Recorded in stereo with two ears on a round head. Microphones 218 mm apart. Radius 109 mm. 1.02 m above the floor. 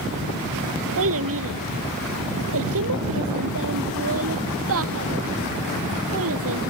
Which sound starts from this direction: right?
A child speaking, at 1.0 s.